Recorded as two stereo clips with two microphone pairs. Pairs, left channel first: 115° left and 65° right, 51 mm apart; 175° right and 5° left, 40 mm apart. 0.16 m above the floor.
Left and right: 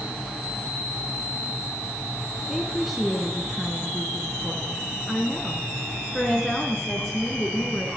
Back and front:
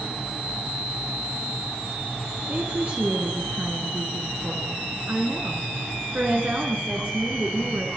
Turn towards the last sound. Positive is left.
turn(degrees=25)